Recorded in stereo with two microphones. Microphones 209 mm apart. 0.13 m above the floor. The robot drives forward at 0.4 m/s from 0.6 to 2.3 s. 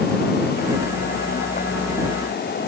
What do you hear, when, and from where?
Only background noise.